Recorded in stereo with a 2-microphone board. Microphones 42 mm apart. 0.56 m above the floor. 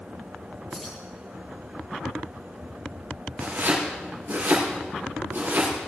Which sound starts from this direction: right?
Chopping, at 3.4 s.